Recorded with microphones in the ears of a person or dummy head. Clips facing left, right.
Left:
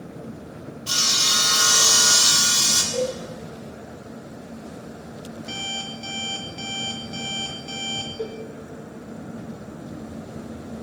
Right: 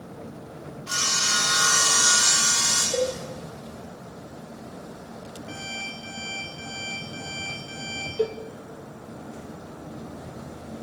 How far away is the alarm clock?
About 1.2 m.